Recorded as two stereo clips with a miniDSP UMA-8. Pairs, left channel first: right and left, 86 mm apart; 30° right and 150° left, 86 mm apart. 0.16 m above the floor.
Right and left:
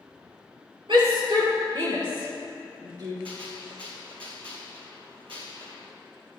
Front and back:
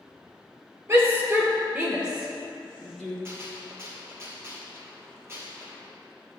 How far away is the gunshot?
About 2.5 m.